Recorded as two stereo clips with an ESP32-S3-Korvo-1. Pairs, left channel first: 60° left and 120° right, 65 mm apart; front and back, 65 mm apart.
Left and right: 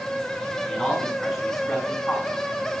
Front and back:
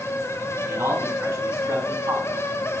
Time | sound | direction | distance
0.7 | a man speaking | 150° left | 6.5 m